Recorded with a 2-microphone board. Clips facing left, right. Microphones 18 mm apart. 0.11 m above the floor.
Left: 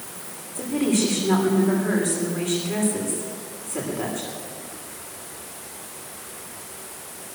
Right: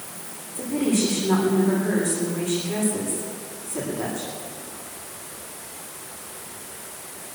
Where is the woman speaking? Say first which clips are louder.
Left 1 dB; 10° left (ahead or behind), 9.5 m.